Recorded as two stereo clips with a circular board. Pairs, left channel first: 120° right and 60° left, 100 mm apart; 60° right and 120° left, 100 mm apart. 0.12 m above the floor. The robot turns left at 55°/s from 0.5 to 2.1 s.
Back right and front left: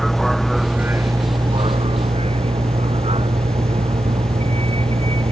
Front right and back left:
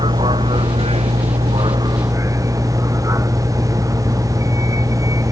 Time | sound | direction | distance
0.0 | a vehicle | 150° left | ?